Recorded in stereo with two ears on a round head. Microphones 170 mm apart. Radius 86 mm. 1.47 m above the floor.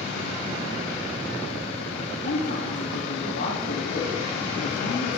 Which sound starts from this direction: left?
A man speaking, at 2.2 s.